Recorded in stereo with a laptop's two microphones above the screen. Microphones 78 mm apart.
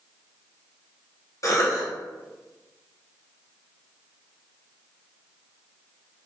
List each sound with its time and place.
1.4 s a cough: 45° left (ahead or behind), 1.1 m